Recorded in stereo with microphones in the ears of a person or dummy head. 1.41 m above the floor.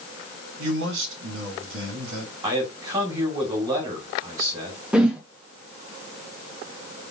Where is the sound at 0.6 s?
80° right, 2 m.